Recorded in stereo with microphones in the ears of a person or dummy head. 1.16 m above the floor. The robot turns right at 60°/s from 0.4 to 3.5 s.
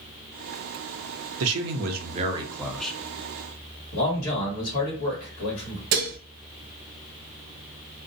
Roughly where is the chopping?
No chopping in this recording.